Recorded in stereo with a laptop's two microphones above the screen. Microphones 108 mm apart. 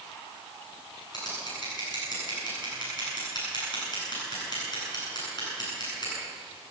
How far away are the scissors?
About 9 m.